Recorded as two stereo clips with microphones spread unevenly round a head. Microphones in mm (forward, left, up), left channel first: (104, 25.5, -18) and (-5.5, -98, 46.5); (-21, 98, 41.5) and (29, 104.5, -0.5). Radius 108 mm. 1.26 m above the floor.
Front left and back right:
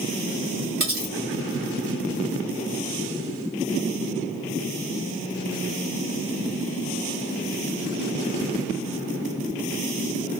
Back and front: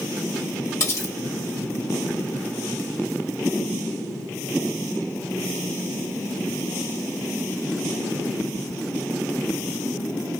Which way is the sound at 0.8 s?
175° right.